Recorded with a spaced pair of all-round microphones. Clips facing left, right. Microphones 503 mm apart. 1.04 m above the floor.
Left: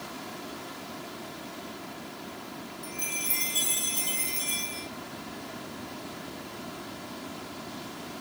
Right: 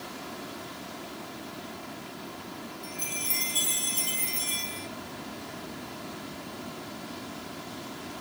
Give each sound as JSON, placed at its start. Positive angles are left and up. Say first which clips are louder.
{"t": 2.8, "sound": "a chime", "louder": "even", "side_deg": 10, "distance_m": 0.8}